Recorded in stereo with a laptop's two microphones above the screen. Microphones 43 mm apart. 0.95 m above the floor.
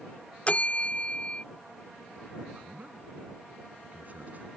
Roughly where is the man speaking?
Right.